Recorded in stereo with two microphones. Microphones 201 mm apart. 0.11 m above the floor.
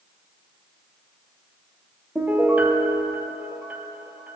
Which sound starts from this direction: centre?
A piano, at 2.1 s.